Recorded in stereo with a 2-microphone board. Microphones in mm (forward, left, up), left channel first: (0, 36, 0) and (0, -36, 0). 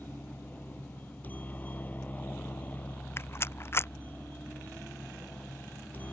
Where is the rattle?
35° left (ahead or behind).